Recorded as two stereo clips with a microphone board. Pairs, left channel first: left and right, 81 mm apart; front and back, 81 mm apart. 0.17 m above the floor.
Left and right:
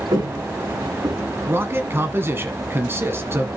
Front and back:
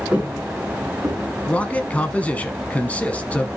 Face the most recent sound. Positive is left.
turn(degrees=-60)